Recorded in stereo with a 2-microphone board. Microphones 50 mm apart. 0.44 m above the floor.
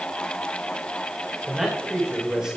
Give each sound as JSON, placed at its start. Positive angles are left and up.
{"t": 1.4, "sound": "a man speaking", "side_deg": -15, "distance_m": 1.9}